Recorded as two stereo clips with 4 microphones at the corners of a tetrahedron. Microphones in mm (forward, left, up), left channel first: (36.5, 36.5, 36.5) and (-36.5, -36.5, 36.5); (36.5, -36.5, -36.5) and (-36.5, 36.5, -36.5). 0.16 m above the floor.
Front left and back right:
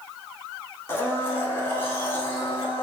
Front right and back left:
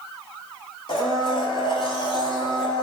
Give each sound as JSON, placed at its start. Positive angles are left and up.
{"t": 0.9, "sound": "a blender", "azimuth_deg": -20, "distance_m": 0.7}